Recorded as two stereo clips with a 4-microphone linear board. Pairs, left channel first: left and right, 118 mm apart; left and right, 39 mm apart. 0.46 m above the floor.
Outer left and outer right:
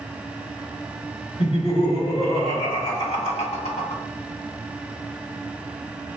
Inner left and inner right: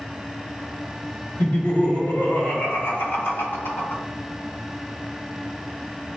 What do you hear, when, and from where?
1.4 s laughter: 60° left (ahead or behind), 1.8 m; by 4.0 s 70° left (ahead or behind), 2.5 m